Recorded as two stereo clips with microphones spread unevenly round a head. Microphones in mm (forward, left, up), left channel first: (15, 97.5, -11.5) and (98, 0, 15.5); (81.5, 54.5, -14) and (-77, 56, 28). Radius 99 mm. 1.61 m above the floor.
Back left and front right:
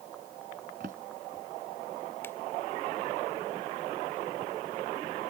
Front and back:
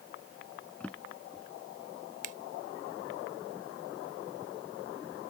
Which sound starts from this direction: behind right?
A finger snap, at 2.2 s.